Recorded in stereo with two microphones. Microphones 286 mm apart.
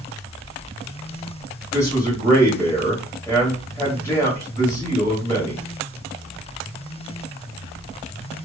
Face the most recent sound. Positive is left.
turn(degrees=10)  # may be behind; listen again after turning